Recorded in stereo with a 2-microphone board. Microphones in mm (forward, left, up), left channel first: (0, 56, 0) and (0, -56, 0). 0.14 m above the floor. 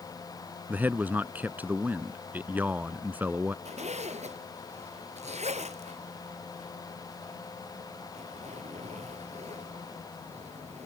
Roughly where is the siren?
No siren in this recording.